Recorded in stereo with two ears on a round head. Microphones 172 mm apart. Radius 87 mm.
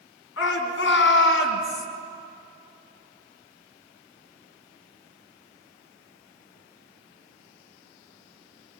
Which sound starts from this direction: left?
A shout, at 0.4 s.